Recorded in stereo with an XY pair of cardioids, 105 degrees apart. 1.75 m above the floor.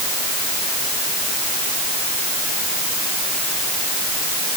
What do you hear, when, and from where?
Only background noise.